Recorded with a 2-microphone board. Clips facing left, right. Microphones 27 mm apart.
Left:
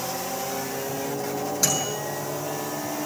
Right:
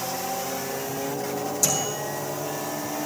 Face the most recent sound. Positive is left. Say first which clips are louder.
# left 1 dB
turn(degrees=45)  # may be behind; listen again after turning